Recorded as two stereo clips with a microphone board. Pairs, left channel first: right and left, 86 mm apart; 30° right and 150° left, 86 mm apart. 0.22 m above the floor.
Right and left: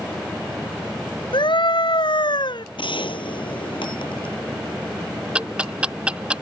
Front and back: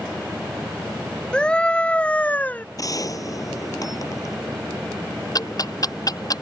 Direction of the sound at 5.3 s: 10° left.